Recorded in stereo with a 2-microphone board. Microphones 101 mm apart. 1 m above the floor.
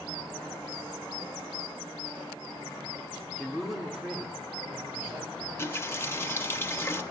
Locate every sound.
3.4 s a man speaking: 10° left (ahead or behind), 1.6 m; by 5.3 s 25° right (ahead or behind), 4 m
5.4 s a running tap: 25° left (ahead or behind), 0.9 m